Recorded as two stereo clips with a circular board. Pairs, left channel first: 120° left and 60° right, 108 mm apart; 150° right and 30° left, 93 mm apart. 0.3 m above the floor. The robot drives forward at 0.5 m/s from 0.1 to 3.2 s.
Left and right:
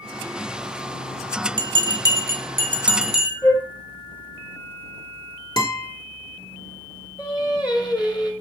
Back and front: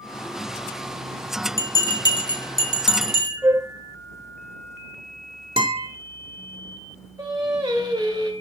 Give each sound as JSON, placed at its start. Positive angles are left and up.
{"t": 1.6, "sound": "a bell", "azimuth_deg": -95, "distance_m": 0.6}
{"t": 3.4, "sound": "a flute", "azimuth_deg": 70, "distance_m": 0.9}
{"t": 5.6, "sound": "a guitar", "azimuth_deg": 70, "distance_m": 1.2}
{"t": 7.2, "sound": "singing", "azimuth_deg": 80, "distance_m": 1.4}